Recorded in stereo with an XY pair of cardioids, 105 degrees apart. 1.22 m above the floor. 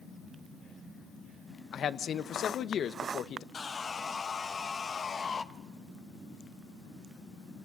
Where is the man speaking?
50° left, 0.8 m.